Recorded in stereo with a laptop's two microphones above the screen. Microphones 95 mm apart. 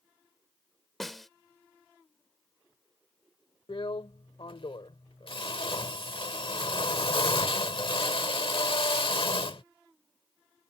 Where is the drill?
65° left (ahead or behind).